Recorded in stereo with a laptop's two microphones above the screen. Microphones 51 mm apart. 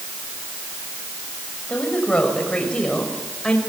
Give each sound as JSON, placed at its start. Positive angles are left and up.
{"t": 1.7, "sound": "a woman speaking", "side_deg": 15, "distance_m": 6.0}